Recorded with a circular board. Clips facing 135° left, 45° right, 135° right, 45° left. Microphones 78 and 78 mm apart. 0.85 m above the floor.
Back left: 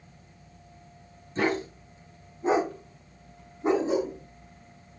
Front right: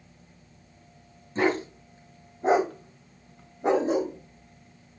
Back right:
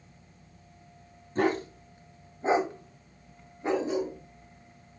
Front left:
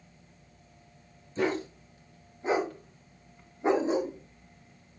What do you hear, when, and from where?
1.4 s a dog barking: 100° right, 3 m; by 4.1 s 10° right, 2.5 m